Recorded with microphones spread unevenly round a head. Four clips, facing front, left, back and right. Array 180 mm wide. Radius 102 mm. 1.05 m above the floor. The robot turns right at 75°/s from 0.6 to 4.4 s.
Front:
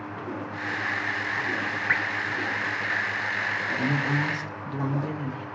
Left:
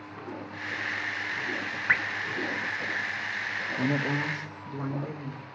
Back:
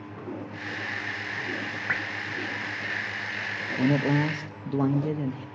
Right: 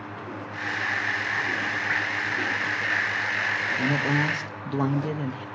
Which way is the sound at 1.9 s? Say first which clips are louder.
Left 3 dB, front 4 dB; 155° left.